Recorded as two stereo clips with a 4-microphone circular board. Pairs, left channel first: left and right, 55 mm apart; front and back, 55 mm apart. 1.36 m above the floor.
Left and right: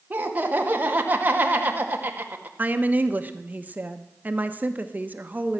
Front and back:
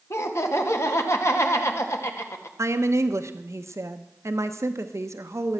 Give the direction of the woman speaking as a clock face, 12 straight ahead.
5 o'clock.